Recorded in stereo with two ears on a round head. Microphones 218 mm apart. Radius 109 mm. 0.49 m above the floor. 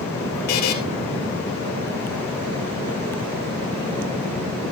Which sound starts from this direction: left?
A buzzer, at 0.5 s.